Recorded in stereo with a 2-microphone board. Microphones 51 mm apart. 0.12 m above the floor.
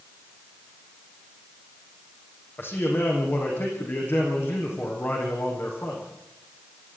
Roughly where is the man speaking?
Left.